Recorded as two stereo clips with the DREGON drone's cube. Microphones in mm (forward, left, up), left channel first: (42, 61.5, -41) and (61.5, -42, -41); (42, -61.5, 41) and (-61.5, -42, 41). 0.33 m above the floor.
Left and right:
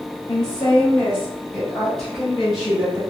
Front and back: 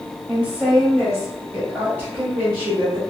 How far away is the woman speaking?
About 1.5 m.